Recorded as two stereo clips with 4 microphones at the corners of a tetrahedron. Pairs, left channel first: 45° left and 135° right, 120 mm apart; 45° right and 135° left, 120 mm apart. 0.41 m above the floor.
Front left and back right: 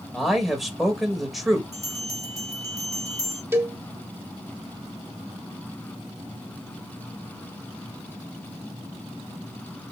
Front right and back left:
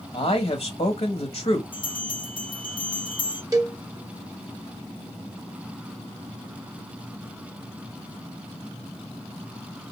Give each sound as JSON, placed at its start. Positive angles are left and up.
{"t": 0.1, "sound": "a man speaking", "azimuth_deg": -45, "distance_m": 1.4}
{"t": 1.7, "sound": "a bell", "azimuth_deg": -80, "distance_m": 2.0}
{"t": 3.5, "sound": "a cowbell", "azimuth_deg": 170, "distance_m": 1.0}